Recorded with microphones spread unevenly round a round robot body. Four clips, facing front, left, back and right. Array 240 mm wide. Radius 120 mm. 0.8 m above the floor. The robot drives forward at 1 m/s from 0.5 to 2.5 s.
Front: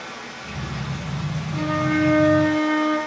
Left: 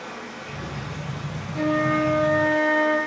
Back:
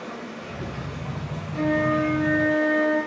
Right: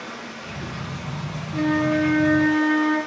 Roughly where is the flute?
Right.